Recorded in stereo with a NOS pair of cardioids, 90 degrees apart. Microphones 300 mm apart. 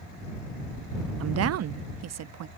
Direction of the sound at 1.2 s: 50° right.